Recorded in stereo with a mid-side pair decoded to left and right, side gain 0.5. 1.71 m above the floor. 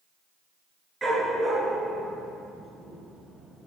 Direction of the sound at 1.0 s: 25° right.